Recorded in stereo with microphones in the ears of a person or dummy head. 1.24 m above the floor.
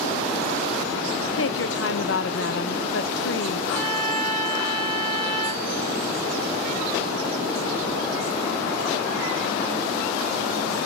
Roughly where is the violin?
Centre.